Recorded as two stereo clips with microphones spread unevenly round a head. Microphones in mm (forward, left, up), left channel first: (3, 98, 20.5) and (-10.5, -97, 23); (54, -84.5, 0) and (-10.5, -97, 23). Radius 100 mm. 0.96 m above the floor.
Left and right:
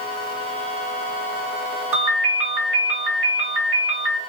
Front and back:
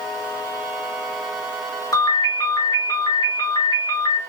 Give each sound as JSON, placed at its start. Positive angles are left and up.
{"t": 1.9, "sound": "a ringtone", "azimuth_deg": -15, "distance_m": 2.0}